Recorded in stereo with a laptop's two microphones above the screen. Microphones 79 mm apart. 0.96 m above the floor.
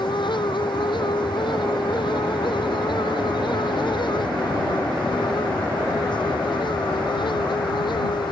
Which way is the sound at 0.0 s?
75° left (ahead or behind).